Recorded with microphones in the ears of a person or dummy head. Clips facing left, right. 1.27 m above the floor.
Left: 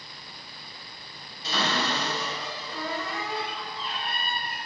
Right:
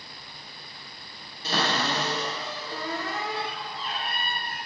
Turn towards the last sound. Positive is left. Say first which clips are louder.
# right 1 dB
turn(degrees=-50)  # may be behind; listen again after turning